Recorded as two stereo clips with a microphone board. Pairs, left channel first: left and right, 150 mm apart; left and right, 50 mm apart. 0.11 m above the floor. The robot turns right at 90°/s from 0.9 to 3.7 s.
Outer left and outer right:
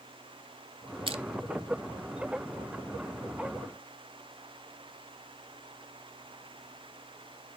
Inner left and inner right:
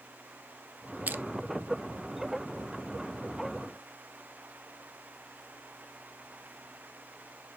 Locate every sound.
1.1 s crushing: 35° right (ahead or behind), 0.5 m; by 1.2 s 50° right (ahead or behind), 0.5 m